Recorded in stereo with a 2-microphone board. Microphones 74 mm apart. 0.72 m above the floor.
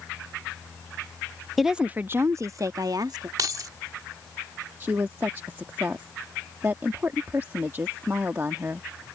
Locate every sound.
1.6 s a woman speaking: centre (ahead or behind); by 3.3 s 65° right (ahead or behind)
3.4 s keys jangling: 50° right (ahead or behind)
4.8 s a woman speaking: 30° right (ahead or behind)